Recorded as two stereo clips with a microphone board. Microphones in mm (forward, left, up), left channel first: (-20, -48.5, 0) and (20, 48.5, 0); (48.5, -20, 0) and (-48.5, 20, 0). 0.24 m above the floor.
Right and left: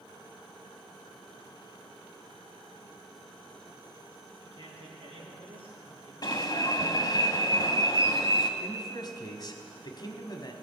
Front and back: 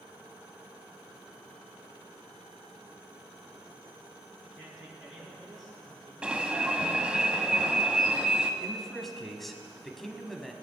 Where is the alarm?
125° right, 1.0 m.